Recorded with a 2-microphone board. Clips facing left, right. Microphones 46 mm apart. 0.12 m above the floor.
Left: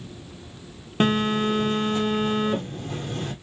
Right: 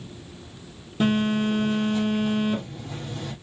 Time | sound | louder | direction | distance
1.0 | a phone buzzing | left 1 dB | 65° left (ahead or behind) | 2.5 m